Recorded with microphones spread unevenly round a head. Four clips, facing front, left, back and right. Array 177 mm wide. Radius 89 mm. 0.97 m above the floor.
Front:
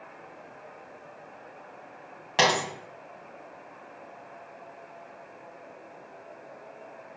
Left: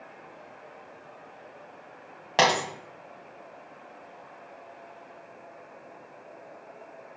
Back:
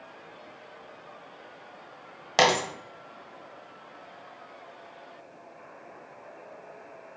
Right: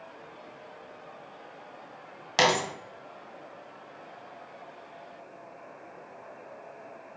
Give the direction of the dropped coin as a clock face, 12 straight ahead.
8 o'clock.